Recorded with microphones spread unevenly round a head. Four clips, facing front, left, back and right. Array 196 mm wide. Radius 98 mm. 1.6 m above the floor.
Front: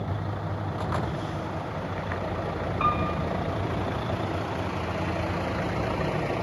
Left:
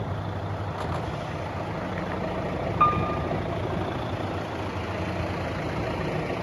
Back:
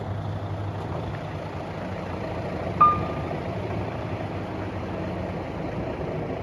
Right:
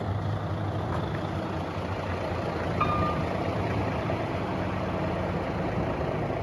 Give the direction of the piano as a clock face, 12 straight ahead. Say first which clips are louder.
Left 5 dB, back 7 dB; 6 o'clock.